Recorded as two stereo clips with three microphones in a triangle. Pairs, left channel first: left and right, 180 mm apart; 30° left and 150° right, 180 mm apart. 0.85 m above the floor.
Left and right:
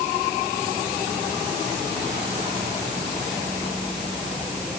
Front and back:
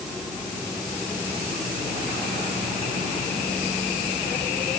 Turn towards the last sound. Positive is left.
No sound to turn to.